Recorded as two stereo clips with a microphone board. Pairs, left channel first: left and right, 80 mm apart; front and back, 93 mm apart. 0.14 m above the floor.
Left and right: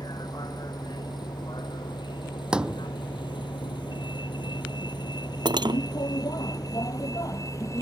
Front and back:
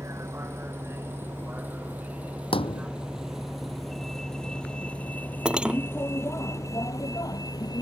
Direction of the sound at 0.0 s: 120° left.